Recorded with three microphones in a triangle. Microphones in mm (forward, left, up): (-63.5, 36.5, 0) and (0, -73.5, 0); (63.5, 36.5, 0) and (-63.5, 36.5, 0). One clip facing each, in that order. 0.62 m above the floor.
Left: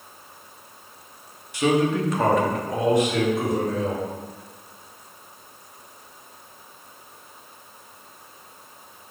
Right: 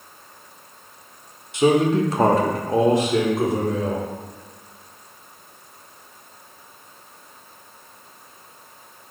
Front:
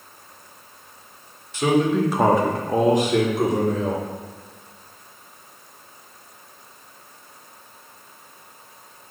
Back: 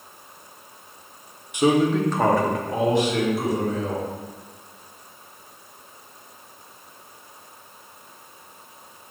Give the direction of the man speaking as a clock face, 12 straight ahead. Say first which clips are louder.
Right 4 dB, even; 4 o'clock.